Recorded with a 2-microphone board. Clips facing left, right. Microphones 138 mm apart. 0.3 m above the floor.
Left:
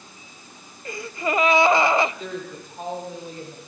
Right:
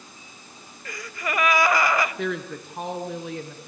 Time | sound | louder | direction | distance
0.8 | a gasp | left 5 dB | 25° left (ahead or behind) | 1.0 m
2.2 | a woman speaking | right 4 dB | 75° right (ahead or behind) | 3.5 m